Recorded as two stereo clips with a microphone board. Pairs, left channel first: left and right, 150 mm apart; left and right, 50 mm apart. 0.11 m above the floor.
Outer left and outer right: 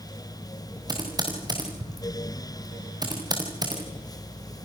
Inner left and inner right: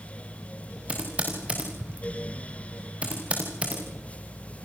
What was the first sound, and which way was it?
Typing on a keyboard, 25° right (ahead or behind).